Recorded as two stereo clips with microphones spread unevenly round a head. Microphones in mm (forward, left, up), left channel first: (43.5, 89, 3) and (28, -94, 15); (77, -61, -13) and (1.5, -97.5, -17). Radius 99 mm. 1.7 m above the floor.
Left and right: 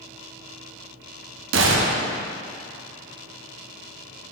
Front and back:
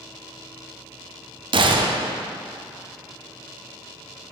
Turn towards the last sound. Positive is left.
turn(degrees=-130)